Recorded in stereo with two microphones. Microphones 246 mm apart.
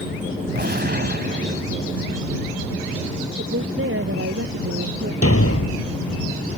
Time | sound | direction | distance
0.6 | a gunshot | 45° right (ahead or behind) | ?
3.4 | a woman speaking | 65° right (ahead or behind) | ?
5.2 | a thud | 80° left | ?